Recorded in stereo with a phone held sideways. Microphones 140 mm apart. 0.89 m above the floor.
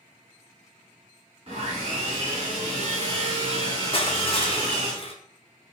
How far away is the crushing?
About 0.6 m.